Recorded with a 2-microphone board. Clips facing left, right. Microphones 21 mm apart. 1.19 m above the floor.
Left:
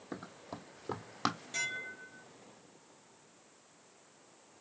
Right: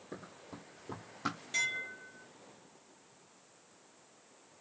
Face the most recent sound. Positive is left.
turn(degrees=-10)  # may be behind; listen again after turning